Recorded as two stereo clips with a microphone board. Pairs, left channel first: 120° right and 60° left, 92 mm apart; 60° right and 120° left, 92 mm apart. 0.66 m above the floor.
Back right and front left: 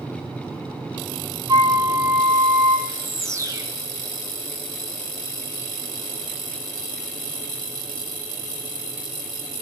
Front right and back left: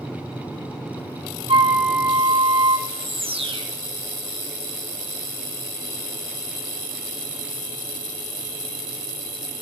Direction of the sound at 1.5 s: 110° left.